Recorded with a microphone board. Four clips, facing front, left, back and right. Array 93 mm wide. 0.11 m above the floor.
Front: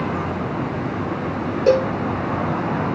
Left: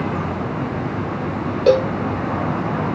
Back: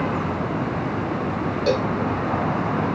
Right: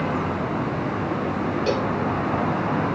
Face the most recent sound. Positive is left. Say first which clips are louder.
# left 12 dB, front 6 dB
turn(degrees=65)